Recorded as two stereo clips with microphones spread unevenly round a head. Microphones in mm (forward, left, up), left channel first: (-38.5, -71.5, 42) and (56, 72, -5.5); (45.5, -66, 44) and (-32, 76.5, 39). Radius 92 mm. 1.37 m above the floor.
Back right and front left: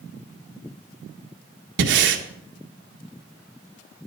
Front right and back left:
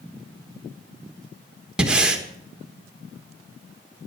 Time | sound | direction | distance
1.8 | breathing | 35° left | 1.5 m